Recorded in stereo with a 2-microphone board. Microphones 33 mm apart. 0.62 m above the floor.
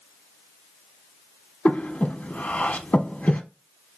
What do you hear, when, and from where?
1.6 s breathing: 50° left (ahead or behind), 0.6 m